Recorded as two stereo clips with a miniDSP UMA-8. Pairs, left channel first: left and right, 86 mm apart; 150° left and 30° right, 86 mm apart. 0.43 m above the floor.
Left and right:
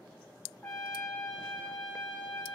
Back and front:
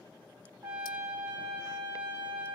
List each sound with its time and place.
0.6 s a trumpet: 15° left, 4 m